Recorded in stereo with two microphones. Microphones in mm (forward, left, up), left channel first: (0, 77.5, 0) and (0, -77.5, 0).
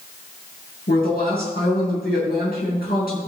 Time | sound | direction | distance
0.9 | a woman speaking | 80° left | 5 m